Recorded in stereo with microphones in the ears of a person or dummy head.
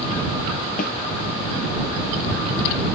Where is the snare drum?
60° left (ahead or behind).